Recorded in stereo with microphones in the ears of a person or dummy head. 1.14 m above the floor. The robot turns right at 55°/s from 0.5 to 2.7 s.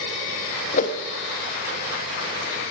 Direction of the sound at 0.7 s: 50° left (ahead or behind).